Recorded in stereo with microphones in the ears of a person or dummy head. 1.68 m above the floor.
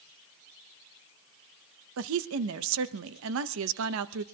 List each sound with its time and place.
2.0 s a woman speaking: 75° right (ahead or behind), 0.7 m